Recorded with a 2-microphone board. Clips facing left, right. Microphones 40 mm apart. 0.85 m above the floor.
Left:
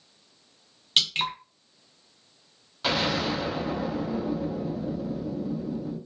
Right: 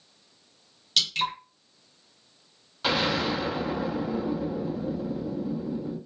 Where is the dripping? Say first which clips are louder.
Left 1 dB; 35° left (ahead or behind), 0.9 m.